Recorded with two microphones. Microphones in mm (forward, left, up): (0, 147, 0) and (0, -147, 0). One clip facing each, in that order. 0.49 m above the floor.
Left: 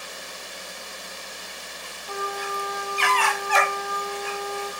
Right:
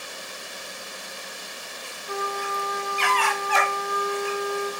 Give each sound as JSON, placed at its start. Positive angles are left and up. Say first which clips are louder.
{"t": 2.1, "sound": "a trumpet", "louder": "right 1 dB", "side_deg": -20, "distance_m": 6.0}